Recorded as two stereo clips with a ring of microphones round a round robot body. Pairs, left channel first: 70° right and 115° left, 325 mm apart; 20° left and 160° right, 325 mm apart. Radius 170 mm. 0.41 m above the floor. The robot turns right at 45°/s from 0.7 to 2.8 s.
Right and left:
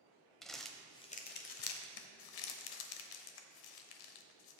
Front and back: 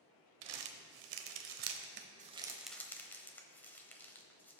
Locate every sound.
0.4 s crumpling: 155° right, 0.9 m; by 4.6 s 60° right, 0.9 m